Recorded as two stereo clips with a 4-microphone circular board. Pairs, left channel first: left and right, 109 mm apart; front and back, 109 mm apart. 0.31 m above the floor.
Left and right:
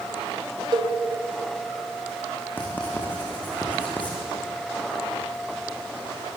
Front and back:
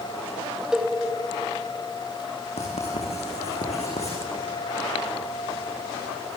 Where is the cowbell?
100° right, 2 m.